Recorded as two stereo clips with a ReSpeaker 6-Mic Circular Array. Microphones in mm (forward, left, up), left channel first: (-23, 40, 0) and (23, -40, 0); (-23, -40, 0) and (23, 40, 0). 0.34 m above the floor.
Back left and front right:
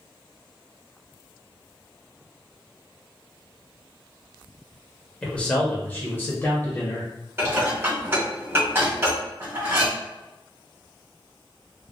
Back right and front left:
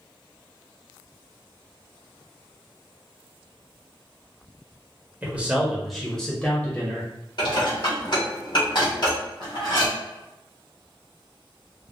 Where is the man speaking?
65° left, 0.8 m; by 7.1 s 175° left, 1.3 m.